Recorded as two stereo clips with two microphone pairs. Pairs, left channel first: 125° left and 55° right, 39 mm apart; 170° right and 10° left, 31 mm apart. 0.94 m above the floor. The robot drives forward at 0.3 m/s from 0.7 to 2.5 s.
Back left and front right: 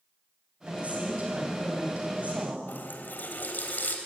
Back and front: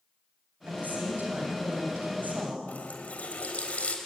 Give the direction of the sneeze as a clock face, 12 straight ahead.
I don't hear a sneeze.